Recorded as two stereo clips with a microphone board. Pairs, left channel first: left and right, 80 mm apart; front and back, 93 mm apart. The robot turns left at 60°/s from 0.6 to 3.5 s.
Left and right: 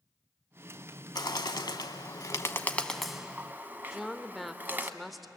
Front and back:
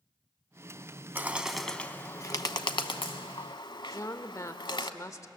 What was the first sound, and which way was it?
A bird, 115° left.